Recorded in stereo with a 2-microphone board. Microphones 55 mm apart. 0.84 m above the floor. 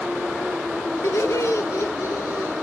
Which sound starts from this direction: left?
Laughter, at 1.0 s.